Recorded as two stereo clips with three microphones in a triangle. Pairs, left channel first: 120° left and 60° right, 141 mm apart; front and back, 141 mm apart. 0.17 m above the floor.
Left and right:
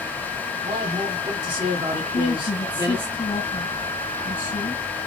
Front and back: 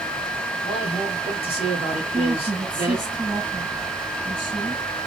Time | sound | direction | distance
0.6 | a man speaking | 20° right | 1.7 m
2.0 | a woman speaking | 130° left | 3 m